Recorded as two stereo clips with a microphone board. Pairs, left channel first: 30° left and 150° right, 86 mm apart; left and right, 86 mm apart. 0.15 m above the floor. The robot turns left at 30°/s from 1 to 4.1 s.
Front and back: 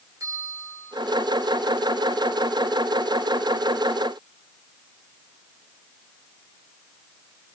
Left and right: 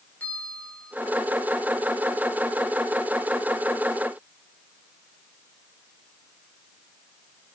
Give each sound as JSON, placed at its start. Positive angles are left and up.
{"t": 0.2, "sound": "a bell", "azimuth_deg": 165, "distance_m": 5.5}